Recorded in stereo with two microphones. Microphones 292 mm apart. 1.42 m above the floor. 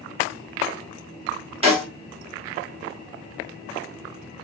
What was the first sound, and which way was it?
A snare drum, 20° right (ahead or behind).